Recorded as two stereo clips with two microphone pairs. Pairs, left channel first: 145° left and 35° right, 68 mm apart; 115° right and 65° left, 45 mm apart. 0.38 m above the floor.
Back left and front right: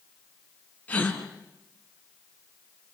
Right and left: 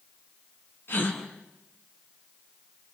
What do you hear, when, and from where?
0.9 s a gasp: 150° right, 3.5 m